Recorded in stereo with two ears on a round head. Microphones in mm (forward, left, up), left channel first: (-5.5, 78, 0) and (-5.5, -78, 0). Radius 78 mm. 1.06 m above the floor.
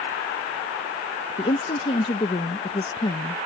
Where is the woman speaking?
30° left (ahead or behind).